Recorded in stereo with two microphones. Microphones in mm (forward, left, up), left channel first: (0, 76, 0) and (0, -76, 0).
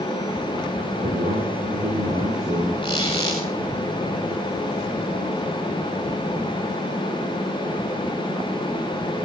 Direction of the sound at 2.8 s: 30° left (ahead or behind).